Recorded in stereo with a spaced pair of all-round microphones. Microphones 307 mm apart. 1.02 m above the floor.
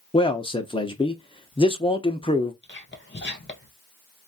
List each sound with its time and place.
0.1 s a man speaking: 15° left (ahead or behind), 0.7 m
2.6 s whispering: 35° left (ahead or behind), 1.2 m